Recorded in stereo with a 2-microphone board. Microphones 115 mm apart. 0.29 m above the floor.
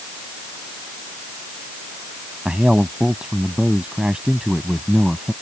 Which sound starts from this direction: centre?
A man speaking, at 2.5 s.